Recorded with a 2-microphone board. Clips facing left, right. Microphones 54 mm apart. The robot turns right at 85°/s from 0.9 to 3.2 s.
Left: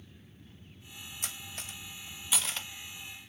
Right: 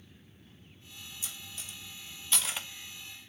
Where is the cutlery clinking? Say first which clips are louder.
Left 5 dB; 55° left (ahead or behind), 1.3 m; by 2.7 s 20° right (ahead or behind), 1.3 m.